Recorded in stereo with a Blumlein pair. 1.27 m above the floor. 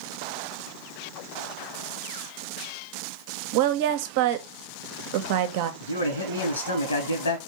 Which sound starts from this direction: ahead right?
A woman speaking, at 3.5 s.